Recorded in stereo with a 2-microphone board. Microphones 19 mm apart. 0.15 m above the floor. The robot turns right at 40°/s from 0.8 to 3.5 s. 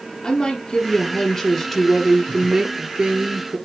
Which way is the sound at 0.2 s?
125° left.